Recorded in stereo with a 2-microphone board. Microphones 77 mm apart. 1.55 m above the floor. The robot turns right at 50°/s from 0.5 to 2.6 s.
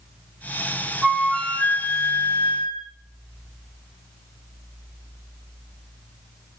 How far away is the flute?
About 0.9 m.